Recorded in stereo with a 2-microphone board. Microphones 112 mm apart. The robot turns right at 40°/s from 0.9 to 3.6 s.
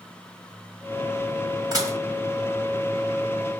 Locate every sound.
1.7 s dishes clattering: 35° right (ahead or behind), 1.9 m; by 2.0 s 25° right (ahead or behind), 1.9 m